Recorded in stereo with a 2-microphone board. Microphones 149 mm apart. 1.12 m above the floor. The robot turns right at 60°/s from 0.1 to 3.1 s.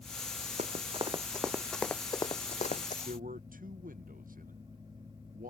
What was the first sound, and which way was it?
Running footsteps, 50° right (ahead or behind).